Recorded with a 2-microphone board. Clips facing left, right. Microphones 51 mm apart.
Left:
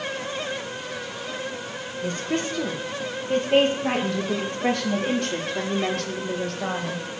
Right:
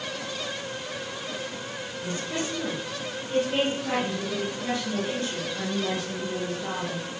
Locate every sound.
2.0 s a woman speaking: 50° left (ahead or behind), 6 m; by 7.1 s 70° left (ahead or behind), 4 m